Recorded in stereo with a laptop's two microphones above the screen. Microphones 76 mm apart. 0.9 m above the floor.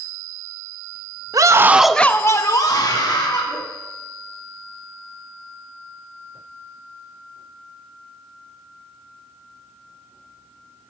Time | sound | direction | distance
1.3 | a scream | 50° right (ahead or behind) | 0.6 m